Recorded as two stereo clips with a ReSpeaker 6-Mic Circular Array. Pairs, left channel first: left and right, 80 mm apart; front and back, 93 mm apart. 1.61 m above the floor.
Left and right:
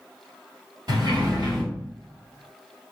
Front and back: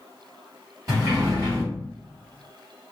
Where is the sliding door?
125° right, 2 m.